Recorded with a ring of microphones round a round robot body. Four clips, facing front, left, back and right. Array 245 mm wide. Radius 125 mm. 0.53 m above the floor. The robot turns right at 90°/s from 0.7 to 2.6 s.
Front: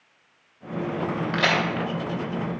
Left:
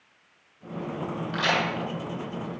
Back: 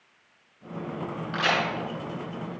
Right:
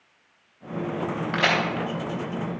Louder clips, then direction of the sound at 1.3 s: Right 2 dB, front 2 dB; 65° right.